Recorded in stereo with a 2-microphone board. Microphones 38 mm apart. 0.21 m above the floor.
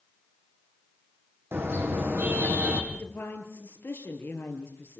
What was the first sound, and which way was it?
A car horn, 75° right (ahead or behind).